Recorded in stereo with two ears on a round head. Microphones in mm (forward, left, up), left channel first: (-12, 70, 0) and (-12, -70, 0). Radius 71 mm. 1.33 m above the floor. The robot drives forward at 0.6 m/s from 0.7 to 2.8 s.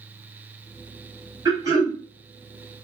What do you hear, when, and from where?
1.4 s throat clearing: 25° right (ahead or behind), 1.6 m; by 2.0 s 20° right (ahead or behind), 1.9 m